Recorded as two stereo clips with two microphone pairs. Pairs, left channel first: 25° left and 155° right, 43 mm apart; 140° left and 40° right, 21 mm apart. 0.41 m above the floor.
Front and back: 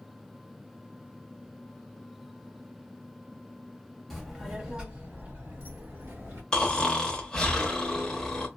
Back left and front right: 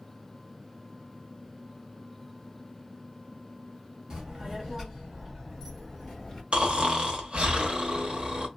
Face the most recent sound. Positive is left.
turn(degrees=-45)